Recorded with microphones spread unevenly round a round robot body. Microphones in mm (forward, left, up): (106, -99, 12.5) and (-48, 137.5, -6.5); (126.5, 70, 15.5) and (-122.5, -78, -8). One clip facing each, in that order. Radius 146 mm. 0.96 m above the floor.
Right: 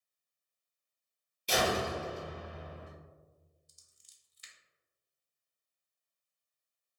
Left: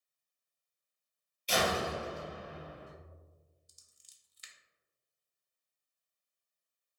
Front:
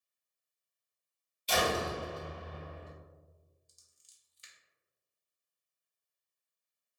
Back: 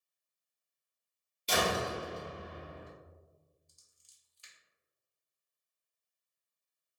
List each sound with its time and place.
1.5 s a door slam: 105° right, 1.4 m
3.7 s scissors: 100° left, 0.6 m